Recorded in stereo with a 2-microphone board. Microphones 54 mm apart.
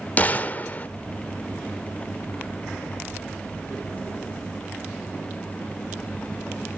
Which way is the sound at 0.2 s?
30° left (ahead or behind).